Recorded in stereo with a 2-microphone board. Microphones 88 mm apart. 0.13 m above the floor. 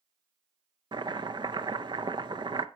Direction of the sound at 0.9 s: 55° right (ahead or behind).